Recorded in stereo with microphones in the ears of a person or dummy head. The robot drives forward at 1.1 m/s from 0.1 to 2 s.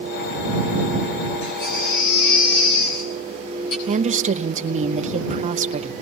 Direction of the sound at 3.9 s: 30° right (ahead or behind).